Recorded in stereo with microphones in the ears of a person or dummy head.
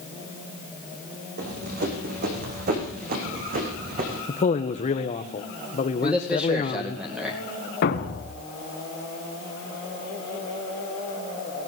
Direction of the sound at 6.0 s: 5° right (ahead or behind).